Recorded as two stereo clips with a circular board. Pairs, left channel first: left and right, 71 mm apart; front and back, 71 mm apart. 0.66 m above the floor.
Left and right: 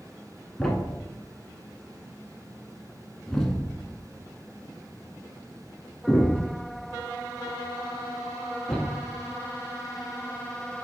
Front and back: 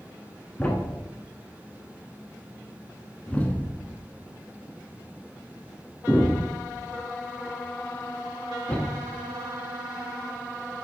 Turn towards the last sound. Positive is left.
turn(degrees=25)